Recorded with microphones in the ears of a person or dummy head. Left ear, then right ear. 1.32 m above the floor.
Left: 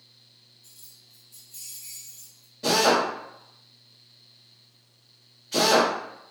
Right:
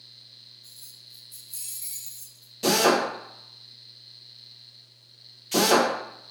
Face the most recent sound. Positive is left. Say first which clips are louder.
# even
turn(degrees=-70)  # may be behind; listen again after turning